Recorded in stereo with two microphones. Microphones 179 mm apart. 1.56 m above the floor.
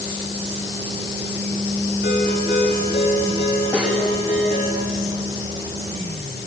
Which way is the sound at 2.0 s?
70° left (ahead or behind).